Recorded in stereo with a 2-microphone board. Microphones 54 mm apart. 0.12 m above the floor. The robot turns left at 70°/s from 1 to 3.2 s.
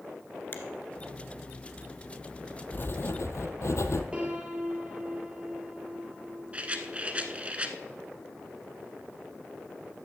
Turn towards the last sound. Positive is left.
turn(degrees=-25)  # may be behind; listen again after turning